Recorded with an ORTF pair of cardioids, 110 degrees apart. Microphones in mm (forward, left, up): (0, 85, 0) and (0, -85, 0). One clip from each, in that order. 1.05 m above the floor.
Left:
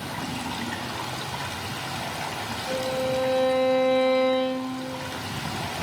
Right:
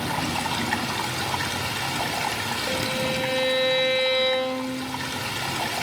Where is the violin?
70° right, 5.5 m.